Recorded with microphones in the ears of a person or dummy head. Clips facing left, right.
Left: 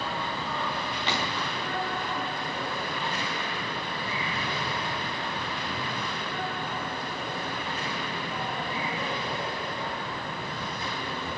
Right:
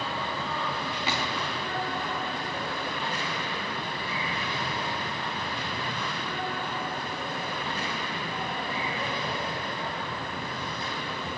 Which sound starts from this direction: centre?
A gunshot, at 1.1 s.